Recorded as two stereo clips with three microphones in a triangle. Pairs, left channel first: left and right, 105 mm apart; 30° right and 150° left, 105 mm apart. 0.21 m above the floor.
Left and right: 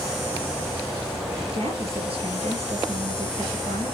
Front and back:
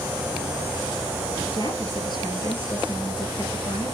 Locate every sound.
1.5 s a woman speaking: 70° right, 3.5 m